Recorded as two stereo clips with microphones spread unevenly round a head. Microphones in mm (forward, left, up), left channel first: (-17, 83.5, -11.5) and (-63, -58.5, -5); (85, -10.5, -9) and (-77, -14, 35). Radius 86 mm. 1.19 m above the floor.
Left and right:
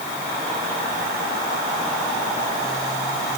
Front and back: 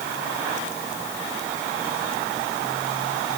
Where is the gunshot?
I don't hear a gunshot.